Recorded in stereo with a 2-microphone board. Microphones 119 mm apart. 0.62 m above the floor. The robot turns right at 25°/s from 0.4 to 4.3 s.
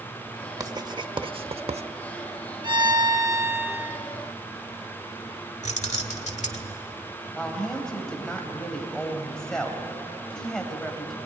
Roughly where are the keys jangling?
Left.